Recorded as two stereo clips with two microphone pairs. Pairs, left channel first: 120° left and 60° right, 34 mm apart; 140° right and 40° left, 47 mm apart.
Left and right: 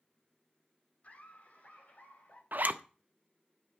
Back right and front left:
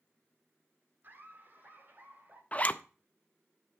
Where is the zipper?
85° right, 0.5 m.